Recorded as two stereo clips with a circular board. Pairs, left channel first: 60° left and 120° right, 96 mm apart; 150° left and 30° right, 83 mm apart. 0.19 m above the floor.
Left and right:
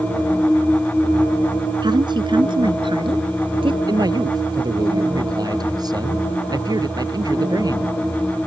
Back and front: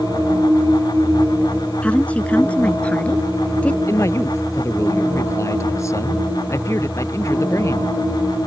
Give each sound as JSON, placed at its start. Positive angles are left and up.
{"t": 1.8, "sound": "a woman speaking", "azimuth_deg": -140}
{"t": 3.9, "sound": "a man speaking", "azimuth_deg": -160}